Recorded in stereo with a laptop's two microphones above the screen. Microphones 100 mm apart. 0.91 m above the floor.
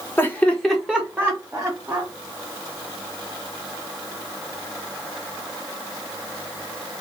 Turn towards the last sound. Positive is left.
turn(degrees=-30)  # may be behind; listen again after turning